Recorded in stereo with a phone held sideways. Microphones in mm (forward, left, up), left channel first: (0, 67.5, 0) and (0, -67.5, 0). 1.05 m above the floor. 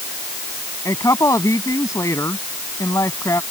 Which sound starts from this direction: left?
A woman speaking, at 0.8 s.